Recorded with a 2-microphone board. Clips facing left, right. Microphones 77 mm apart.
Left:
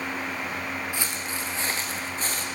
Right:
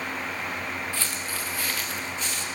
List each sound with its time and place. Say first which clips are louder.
0.9 s footsteps: left 1 dB; 15° left (ahead or behind), 2 m; by 2.5 s 40° left (ahead or behind), 1.9 m